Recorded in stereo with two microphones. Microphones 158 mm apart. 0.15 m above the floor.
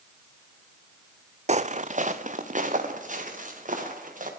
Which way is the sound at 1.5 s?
45° right (ahead or behind).